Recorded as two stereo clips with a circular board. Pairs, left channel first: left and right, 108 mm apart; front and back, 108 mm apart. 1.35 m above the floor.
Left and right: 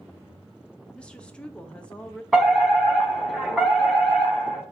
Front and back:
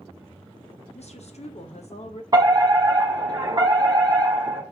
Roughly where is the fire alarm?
Behind.